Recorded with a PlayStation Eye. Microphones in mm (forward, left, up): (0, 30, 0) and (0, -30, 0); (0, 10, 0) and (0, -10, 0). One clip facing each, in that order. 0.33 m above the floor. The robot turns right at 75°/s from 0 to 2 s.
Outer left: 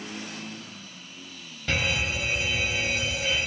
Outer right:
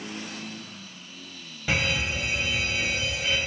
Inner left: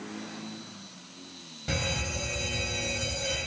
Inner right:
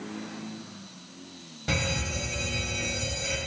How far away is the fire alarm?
About 3.5 m.